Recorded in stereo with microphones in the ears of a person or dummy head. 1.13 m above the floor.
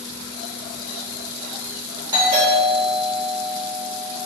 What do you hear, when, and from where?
2.1 s a doorbell: 30° right (ahead or behind), 1.2 m